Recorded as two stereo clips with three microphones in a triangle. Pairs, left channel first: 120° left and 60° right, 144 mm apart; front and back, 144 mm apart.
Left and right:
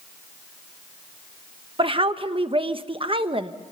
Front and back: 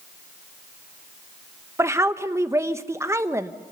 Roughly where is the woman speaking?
Right.